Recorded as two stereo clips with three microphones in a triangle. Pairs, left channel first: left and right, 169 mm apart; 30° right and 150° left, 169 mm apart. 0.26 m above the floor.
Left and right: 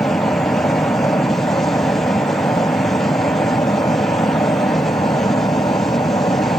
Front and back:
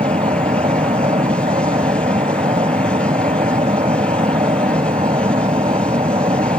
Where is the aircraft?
145° left; by 6.6 s 130° left.